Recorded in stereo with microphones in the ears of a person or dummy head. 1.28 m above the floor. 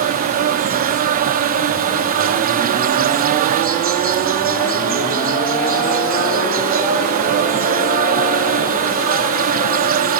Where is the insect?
45° right (ahead or behind), 0.7 m.